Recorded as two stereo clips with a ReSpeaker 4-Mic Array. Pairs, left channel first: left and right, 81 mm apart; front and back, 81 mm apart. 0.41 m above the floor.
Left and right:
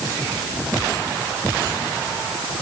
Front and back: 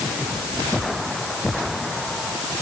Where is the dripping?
No dripping in this recording.